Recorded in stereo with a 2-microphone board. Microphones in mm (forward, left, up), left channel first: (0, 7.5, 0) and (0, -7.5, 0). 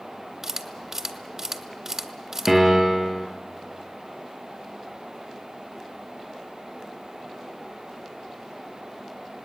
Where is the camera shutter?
30° right (ahead or behind), 1.7 m.